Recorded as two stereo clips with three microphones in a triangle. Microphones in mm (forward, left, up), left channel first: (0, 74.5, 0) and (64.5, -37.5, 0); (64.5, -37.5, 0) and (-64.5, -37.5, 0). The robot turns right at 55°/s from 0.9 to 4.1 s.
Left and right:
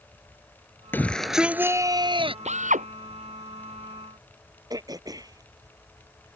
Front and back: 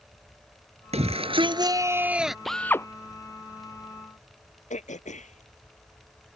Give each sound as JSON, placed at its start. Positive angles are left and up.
{"t": 0.9, "sound": "a shout", "azimuth_deg": -170}
{"t": 2.5, "sound": "a drill", "azimuth_deg": -90}
{"t": 4.7, "sound": "throat clearing", "azimuth_deg": 0}